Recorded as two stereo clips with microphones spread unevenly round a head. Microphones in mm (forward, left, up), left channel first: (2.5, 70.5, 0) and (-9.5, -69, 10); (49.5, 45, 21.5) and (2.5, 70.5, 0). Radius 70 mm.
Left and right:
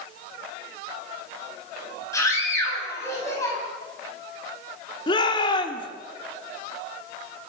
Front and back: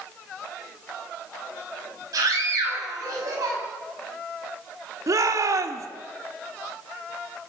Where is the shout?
145° left, 2.5 m.